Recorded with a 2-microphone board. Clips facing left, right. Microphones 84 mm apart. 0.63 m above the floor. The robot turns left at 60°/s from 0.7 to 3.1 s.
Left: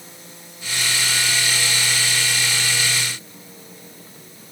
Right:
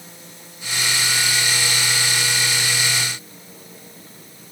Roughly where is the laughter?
No laughter in this recording.